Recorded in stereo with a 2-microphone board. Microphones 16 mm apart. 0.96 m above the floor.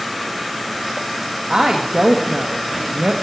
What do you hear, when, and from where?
1.5 s a woman speaking: 60° right (ahead or behind), 0.9 m